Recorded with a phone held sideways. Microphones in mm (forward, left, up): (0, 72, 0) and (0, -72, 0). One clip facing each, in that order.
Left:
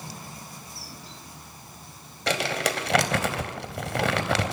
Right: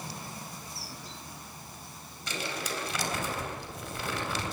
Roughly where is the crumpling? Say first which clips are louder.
Left 9 dB; left.